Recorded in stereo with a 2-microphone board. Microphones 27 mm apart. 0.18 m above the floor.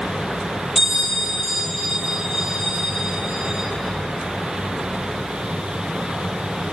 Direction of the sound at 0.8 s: 5° left (ahead or behind).